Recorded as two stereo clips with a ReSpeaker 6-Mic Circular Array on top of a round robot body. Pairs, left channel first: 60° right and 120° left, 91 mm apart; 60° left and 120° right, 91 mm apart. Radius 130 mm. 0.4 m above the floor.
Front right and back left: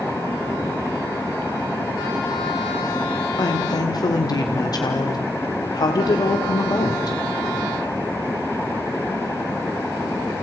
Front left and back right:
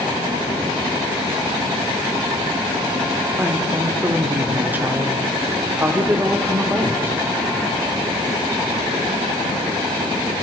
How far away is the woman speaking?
About 1.9 m.